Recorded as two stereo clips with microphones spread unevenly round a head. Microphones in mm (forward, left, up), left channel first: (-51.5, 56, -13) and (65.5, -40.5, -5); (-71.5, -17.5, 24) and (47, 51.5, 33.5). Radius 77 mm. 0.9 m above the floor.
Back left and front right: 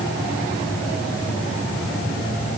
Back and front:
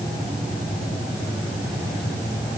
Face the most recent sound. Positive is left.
No sound to turn to.